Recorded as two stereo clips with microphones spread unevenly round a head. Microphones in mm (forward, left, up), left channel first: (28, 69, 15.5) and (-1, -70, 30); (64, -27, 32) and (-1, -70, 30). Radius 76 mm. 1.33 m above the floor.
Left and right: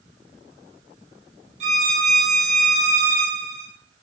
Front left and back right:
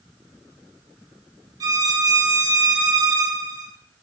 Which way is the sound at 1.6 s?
125° right.